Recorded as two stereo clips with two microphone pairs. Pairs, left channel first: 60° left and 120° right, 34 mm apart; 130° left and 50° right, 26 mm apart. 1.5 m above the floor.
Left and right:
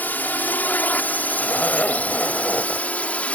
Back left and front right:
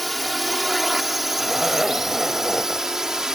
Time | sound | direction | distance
0.0 | a drone | 40° left | ?
1.4 | a zipper | 30° left | ?